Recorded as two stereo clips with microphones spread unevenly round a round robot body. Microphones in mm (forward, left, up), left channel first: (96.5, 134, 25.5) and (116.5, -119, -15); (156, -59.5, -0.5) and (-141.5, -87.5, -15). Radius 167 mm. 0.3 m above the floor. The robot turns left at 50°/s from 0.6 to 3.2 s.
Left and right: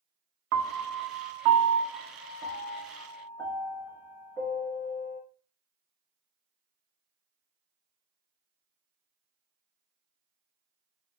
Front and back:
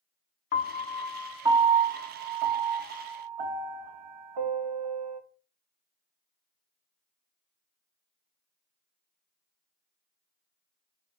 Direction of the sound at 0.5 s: 55° right.